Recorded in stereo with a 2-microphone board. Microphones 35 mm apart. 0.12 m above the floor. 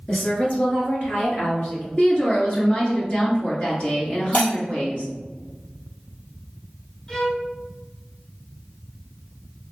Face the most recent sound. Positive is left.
turn(degrees=15)  # may be behind; listen again after turning